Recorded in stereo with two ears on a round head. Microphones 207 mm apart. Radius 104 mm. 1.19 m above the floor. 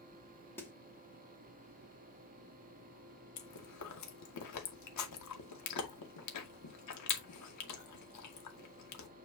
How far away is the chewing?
About 2 m.